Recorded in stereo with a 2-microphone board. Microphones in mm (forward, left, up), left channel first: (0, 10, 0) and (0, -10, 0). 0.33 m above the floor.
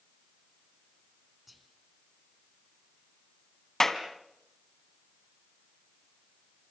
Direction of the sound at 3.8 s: 15° left (ahead or behind).